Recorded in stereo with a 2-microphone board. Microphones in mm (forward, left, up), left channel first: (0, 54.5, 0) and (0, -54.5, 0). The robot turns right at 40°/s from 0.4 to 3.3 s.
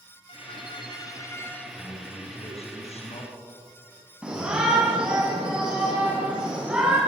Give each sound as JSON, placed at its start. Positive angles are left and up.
{"t": 0.3, "sound": "a violin", "azimuth_deg": 115, "distance_m": 1.7}
{"t": 1.8, "sound": "a man speaking", "azimuth_deg": 50, "distance_m": 4.0}
{"t": 4.2, "sound": "a shout", "side_deg": -10, "distance_m": 5.5}